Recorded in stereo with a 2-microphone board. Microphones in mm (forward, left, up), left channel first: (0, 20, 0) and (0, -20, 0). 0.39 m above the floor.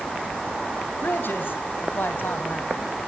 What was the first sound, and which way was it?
A man speaking, 65° left (ahead or behind).